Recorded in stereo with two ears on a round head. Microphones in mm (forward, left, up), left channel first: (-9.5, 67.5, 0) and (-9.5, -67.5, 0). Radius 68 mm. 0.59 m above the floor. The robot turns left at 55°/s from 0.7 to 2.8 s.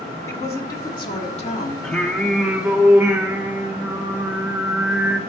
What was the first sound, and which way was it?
A woman speaking, 150° left.